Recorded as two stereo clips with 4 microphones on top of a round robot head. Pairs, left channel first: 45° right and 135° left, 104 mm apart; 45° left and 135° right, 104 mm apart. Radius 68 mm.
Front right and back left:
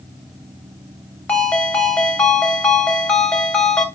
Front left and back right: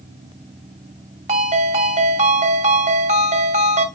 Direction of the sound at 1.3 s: 120° right.